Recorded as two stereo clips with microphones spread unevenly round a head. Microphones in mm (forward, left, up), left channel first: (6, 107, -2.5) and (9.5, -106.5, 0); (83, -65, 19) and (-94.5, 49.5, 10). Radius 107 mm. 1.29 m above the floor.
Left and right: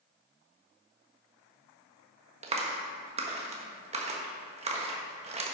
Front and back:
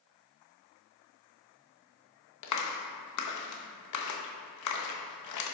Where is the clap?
25° right, 1.3 m.